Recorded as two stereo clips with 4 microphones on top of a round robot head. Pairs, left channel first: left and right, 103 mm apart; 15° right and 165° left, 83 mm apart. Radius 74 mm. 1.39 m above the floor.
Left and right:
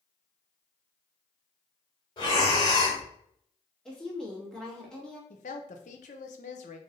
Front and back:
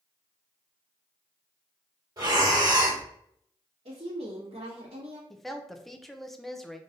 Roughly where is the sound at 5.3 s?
Left.